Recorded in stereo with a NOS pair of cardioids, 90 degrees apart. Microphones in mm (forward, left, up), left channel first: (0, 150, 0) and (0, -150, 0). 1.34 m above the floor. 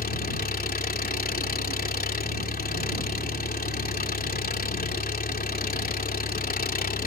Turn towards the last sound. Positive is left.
turn(degrees=30)